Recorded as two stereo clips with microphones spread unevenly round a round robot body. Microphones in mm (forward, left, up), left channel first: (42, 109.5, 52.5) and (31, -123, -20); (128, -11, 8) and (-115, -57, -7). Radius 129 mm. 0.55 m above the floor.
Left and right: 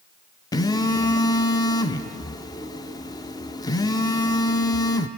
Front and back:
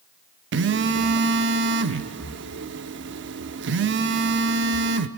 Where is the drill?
No drill in this recording.